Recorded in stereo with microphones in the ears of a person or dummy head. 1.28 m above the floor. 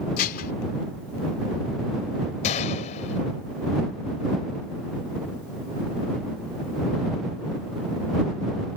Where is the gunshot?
35° left (ahead or behind).